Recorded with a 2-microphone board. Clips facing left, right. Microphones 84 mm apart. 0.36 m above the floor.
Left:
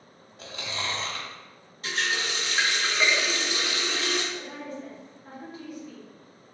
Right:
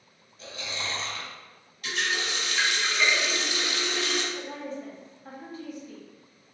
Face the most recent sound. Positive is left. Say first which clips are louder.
# right 1 dB
turn(degrees=-35)  # may be behind; listen again after turning